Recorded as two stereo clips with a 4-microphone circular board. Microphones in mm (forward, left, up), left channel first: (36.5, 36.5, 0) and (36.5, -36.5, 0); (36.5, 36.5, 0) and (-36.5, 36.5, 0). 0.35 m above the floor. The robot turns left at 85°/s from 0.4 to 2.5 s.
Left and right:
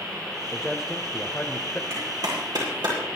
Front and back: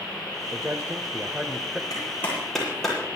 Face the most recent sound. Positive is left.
turn(degrees=-85)